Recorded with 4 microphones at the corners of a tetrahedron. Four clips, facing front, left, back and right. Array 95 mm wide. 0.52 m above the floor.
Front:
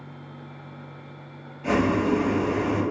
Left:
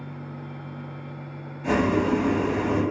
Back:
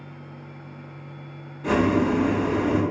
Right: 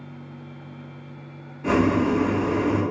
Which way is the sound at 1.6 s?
115° right.